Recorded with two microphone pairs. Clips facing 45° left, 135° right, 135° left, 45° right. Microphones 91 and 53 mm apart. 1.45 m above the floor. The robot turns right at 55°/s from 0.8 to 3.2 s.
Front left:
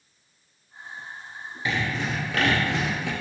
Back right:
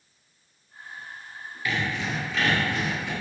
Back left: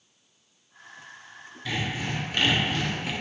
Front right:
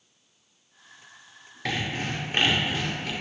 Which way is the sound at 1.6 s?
25° right.